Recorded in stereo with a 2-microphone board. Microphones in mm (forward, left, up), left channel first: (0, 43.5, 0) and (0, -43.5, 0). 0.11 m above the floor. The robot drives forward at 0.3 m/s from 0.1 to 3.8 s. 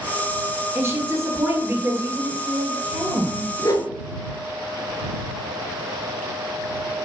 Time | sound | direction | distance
0.8 | a woman speaking | 30° right (ahead or behind) | 2 m
3.6 | a whoosh | 45° left (ahead or behind) | 1.0 m